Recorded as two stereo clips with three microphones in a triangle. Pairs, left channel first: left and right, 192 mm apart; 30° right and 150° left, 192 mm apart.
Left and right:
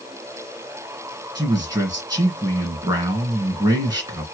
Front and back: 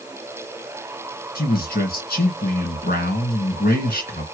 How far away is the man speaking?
About 2.5 m.